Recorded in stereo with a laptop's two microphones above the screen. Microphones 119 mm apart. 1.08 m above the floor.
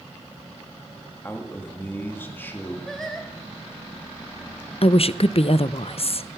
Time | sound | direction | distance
1.2 | a man speaking | 15° left (ahead or behind) | 1.9 m
2.9 | singing | centre (ahead or behind) | 2 m
4.8 | a woman speaking | 55° left (ahead or behind) | 0.6 m